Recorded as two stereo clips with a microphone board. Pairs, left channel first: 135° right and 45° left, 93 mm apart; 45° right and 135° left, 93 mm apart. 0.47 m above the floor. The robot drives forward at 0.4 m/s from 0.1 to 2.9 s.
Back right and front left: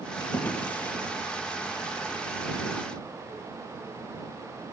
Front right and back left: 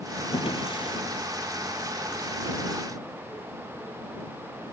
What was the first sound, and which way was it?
A drawer, 65° right.